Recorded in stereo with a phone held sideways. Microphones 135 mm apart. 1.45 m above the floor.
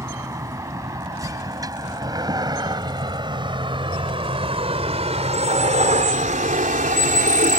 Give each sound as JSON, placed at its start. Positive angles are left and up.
{"t": 0.0, "sound": "a vehicle", "side_deg": -20}